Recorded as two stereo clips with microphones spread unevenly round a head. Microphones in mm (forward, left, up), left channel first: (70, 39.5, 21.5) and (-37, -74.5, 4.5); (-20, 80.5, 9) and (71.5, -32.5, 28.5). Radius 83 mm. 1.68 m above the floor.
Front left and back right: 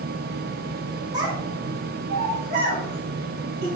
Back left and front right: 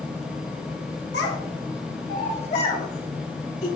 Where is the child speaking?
155° left, 1.9 m; by 3.7 s 170° right, 4.5 m.